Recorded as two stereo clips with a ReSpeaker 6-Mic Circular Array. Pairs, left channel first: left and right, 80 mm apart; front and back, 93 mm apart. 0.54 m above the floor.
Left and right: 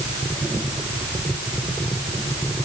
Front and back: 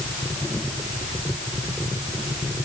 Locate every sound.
Only background noise.